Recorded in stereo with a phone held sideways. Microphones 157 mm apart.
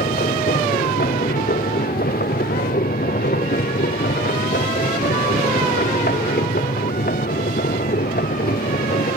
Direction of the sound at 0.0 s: 65° left (ahead or behind).